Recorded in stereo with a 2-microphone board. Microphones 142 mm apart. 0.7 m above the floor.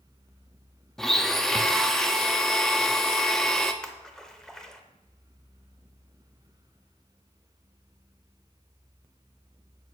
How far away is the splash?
About 0.8 m.